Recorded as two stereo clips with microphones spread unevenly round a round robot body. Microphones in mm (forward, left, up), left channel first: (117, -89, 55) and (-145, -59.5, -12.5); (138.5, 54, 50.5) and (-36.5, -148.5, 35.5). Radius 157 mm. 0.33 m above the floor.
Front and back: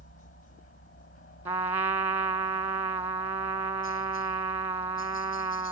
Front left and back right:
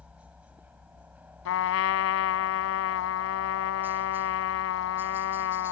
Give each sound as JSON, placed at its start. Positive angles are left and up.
{"t": 0.0, "sound": "a helicopter", "azimuth_deg": -45}
{"t": 1.4, "sound": "a trumpet", "azimuth_deg": 95}